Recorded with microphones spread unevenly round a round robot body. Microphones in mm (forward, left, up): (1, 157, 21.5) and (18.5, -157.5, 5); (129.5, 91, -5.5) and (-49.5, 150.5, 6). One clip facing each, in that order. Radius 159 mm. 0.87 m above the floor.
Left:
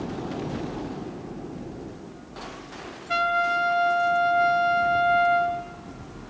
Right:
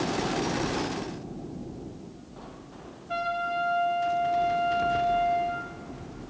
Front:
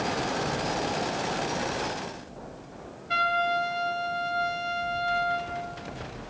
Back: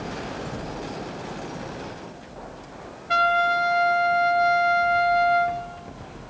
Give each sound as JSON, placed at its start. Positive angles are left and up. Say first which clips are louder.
{"t": 3.1, "sound": "a trumpet", "louder": "left 4 dB, back 5 dB", "azimuth_deg": 135, "distance_m": 3.0}